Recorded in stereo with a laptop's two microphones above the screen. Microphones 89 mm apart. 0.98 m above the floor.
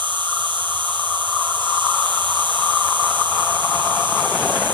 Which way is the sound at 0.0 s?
60° right (ahead or behind).